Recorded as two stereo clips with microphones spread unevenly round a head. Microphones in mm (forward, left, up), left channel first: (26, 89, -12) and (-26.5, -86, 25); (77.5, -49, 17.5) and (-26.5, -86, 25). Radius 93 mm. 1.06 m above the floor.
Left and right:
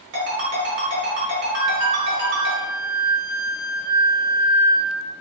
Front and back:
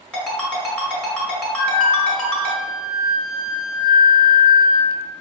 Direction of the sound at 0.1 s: 65° right.